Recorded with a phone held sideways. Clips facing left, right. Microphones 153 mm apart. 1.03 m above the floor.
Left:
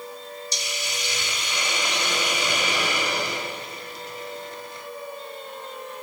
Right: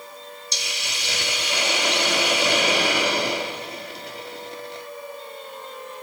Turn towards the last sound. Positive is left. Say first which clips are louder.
# right 1 dB
turn(degrees=-70)  # may be behind; listen again after turning